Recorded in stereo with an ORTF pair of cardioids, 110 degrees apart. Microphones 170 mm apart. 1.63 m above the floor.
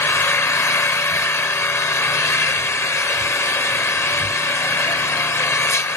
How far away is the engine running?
About 0.8 m.